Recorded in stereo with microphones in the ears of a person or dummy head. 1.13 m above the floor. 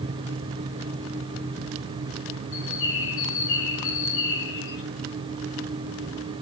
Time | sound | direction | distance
2.5 | a bird | 70° left (ahead or behind) | 5 m